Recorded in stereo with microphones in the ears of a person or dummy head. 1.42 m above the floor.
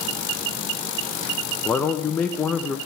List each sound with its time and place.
1.6 s a man speaking: 10° left (ahead or behind), 0.7 m